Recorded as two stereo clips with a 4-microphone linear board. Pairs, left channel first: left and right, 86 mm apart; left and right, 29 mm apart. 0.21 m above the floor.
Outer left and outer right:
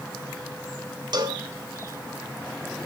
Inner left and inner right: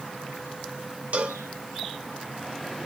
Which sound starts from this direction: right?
A cowbell, at 1.1 s.